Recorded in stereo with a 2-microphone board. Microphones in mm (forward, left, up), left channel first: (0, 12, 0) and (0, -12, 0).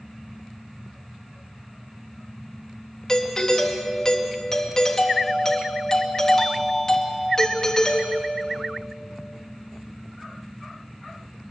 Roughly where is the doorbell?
Left.